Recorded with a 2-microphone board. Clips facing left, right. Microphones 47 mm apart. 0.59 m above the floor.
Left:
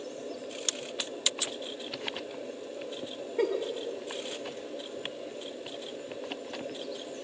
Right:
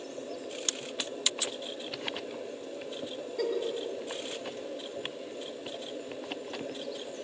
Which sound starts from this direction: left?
A giggle, at 3.4 s.